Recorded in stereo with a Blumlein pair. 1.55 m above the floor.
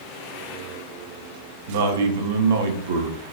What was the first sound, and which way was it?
A man speaking, 60° right.